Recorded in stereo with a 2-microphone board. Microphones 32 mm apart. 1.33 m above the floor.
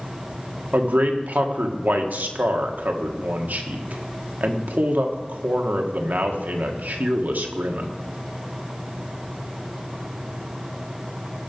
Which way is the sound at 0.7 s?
75° right (ahead or behind).